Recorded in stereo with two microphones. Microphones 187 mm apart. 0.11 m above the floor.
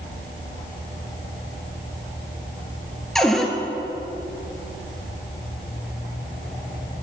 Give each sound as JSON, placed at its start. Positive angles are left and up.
{"t": 3.1, "sound": "a cupboard door", "side_deg": 0, "distance_m": 1.0}